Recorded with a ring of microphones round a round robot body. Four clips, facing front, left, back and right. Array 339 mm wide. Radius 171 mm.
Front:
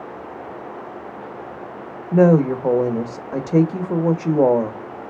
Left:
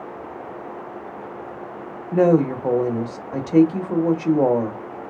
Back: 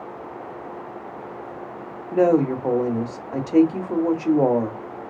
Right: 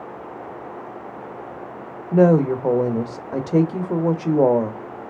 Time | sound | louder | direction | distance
2.1 | a woman speaking | right 1 dB, front 3 dB | 40° right | 0.9 m